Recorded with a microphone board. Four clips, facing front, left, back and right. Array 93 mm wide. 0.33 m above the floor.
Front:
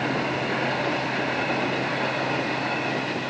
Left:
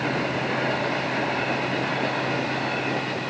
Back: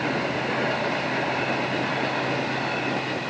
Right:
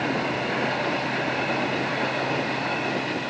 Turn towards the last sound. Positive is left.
No sound to turn to.